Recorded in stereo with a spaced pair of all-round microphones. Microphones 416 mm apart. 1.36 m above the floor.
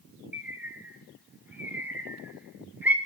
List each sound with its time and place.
0.3 s a bird: 5° right (ahead or behind), 0.6 m